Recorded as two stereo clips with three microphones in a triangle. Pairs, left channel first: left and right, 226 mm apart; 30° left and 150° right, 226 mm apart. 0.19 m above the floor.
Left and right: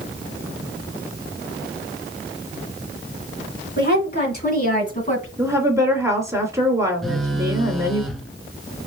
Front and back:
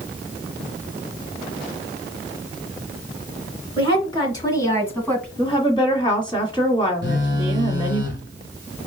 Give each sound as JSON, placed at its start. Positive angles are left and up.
{"t": 3.8, "sound": "a woman speaking", "azimuth_deg": 90, "distance_m": 2.5}
{"t": 5.4, "sound": "a woman speaking", "azimuth_deg": -25, "distance_m": 1.6}
{"t": 7.0, "sound": "a phone buzzing", "azimuth_deg": 0, "distance_m": 0.8}